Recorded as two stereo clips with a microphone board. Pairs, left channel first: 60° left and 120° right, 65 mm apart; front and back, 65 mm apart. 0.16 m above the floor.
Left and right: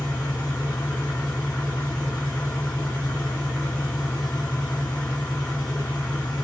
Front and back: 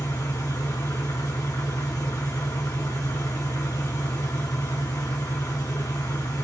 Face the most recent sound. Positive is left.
turn(degrees=-10)